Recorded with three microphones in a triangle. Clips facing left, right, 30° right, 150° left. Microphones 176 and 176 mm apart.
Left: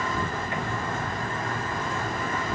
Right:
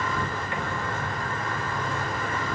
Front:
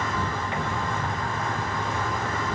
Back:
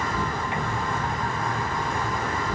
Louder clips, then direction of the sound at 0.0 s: Even, back 1 dB; 75° left.